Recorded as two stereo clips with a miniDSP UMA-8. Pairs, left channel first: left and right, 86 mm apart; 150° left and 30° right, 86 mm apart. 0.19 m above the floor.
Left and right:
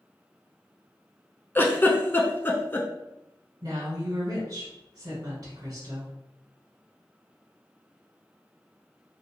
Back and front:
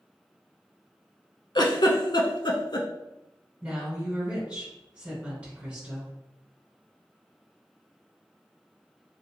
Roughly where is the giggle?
Behind left.